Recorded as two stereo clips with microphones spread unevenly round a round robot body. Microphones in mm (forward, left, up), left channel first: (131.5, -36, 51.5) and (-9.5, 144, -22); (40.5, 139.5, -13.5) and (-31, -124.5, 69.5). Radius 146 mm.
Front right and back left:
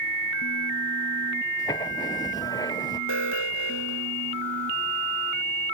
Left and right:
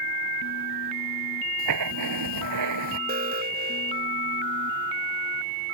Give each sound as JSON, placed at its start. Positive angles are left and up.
{"t": 1.6, "sound": "writing", "azimuth_deg": -130}
{"t": 3.1, "sound": "an alarm", "azimuth_deg": -45}